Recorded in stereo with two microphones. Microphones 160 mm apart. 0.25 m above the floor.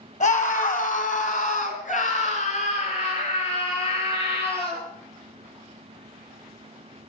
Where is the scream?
50° left (ahead or behind), 2.5 m; by 4.8 s 40° left (ahead or behind), 6 m.